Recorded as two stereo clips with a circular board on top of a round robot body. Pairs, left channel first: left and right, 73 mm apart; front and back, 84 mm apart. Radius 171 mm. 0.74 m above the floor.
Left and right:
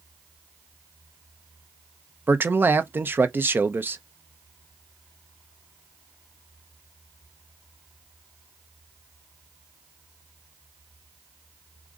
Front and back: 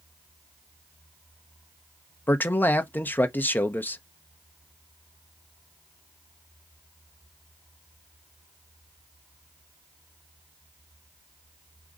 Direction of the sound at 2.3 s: 50° right.